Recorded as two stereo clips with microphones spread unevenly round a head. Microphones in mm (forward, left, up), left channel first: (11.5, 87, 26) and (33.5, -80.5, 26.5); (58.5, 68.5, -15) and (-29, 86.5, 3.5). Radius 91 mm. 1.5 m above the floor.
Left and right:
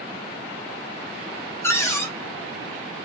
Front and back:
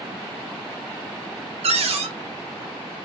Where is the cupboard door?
175° left, 0.6 m.